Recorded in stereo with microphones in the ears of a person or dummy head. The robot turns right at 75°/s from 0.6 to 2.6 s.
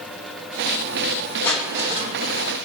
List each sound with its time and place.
1.4 s crushing: 170° left, 1.9 m; by 2.5 s 110° right, 1.9 m